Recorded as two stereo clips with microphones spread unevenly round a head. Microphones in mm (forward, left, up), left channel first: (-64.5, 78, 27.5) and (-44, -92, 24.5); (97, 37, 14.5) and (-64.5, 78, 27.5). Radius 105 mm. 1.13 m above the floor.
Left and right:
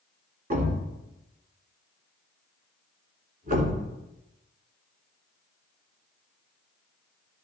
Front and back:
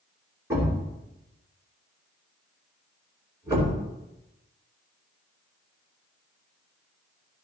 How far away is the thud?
About 2.5 m.